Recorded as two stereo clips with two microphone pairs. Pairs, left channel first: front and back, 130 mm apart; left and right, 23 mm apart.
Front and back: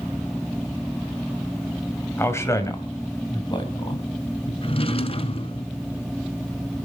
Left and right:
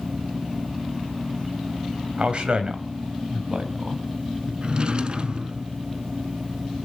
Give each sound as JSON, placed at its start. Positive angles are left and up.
{"t": 2.2, "sound": "a man speaking", "azimuth_deg": -65, "distance_m": 2.5}
{"t": 4.6, "sound": "a drawer", "azimuth_deg": -40, "distance_m": 1.0}